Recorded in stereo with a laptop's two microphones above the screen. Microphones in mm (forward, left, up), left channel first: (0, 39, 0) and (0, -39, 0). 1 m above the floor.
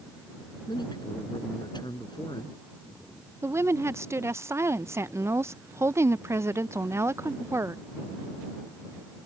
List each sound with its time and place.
0.7 s a man speaking: 70° left (ahead or behind)
3.4 s a woman speaking: 35° right (ahead or behind)